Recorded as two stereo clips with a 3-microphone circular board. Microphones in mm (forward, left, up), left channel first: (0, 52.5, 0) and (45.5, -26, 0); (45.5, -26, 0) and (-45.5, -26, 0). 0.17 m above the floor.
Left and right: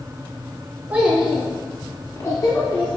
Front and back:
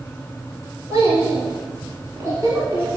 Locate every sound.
0.9 s a child speaking: 130° right, 1.7 m; by 3.0 s 120° left, 1.8 m